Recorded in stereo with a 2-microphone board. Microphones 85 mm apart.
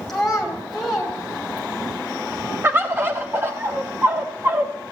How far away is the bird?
About 1.3 m.